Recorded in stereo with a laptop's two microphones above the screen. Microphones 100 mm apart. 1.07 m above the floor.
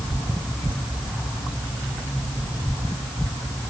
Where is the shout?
No shout in this recording.